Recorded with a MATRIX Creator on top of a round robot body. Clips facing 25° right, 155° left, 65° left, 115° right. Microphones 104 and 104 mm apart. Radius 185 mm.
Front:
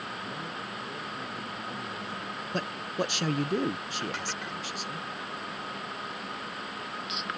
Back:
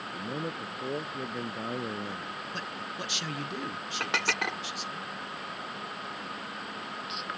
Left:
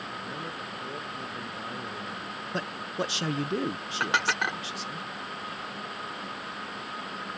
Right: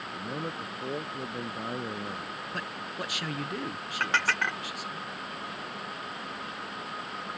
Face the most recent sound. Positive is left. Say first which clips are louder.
# back 8 dB, left 1 dB
turn(degrees=140)